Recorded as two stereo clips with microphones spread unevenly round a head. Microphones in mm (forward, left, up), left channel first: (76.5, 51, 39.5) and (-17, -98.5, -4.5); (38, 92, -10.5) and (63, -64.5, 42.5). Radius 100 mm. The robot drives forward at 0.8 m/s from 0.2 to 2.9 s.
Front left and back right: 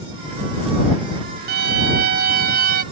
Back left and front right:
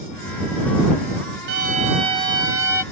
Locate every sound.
1.5 s a violin: 125° right; by 2.8 s 160° right